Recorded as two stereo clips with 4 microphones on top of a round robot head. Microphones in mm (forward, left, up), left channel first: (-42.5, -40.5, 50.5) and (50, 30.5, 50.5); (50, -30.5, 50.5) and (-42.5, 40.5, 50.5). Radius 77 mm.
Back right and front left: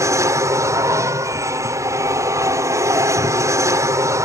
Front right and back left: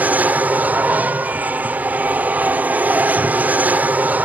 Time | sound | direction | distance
0.0 | an aircraft | 80° left | ?